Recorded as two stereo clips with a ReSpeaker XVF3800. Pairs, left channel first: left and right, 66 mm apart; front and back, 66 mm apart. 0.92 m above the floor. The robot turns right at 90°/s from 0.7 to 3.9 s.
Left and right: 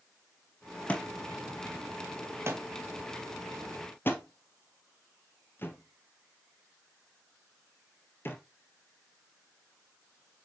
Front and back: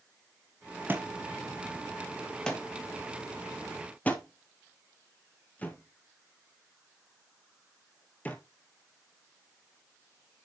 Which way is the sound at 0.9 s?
145° left.